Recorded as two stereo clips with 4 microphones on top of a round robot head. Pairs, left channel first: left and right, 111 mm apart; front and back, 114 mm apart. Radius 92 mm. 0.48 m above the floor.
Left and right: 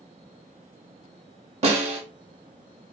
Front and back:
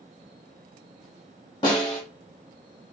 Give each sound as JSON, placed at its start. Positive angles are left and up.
{"t": 1.6, "sound": "a snare drum", "azimuth_deg": -60, "distance_m": 0.7}